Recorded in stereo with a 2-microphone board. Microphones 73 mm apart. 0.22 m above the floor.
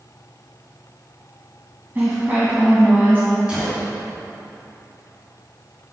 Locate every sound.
1.9 s a woman speaking: 30° right (ahead or behind), 1.4 m
3.5 s a gunshot: 15° right (ahead or behind), 2 m